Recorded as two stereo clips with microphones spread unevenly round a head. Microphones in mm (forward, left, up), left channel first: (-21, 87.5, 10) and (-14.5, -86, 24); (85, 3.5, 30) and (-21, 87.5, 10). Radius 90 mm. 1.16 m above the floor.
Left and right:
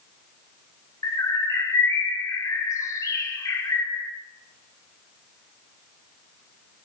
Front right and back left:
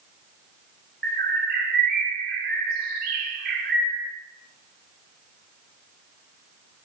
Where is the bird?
165° left, 1.3 m.